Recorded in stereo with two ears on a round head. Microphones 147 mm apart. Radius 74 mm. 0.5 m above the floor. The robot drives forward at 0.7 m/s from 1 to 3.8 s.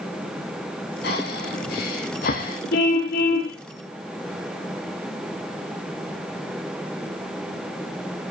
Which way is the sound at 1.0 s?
70° left (ahead or behind).